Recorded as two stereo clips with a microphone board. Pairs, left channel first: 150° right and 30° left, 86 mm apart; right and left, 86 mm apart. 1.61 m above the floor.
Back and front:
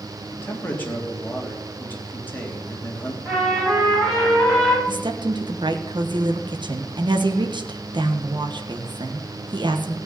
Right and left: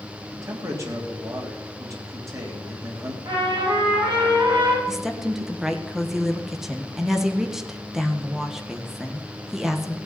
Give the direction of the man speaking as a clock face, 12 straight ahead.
7 o'clock.